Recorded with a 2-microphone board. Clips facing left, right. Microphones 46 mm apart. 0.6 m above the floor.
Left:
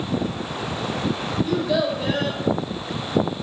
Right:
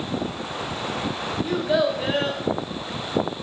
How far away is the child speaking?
About 0.6 m.